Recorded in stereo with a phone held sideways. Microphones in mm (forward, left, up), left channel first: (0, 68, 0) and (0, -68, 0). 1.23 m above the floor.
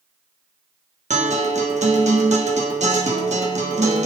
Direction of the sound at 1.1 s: 60° right (ahead or behind).